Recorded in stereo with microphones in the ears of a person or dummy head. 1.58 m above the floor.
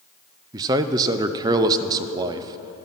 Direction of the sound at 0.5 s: 20° right (ahead or behind).